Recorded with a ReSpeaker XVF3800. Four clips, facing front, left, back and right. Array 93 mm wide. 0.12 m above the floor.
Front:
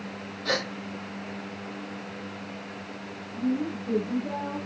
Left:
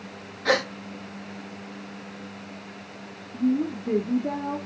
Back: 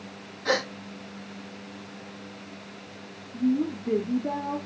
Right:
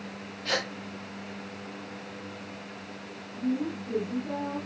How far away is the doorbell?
I don't hear a doorbell.